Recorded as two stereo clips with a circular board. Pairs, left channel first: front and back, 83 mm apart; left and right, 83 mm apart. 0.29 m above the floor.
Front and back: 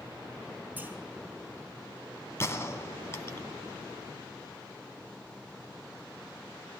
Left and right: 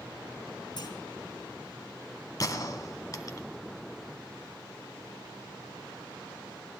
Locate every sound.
0.8 s a clunk: 110° left, 4 m
2.4 s a gunshot: 50° left, 2 m